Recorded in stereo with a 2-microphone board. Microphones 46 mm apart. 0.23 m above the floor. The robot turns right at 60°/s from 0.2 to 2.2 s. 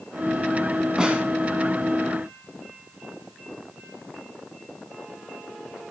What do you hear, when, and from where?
1.0 s a snare drum: 15° right (ahead or behind), 0.9 m; by 1.2 s 30° right (ahead or behind), 0.9 m